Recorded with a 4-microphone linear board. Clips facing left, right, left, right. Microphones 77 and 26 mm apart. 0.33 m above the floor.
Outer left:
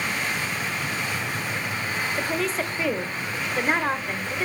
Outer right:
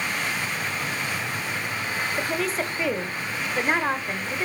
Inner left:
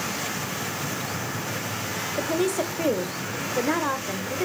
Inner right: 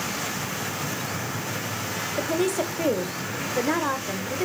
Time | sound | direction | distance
2.2 | a woman speaking | centre (ahead or behind) | 1.3 m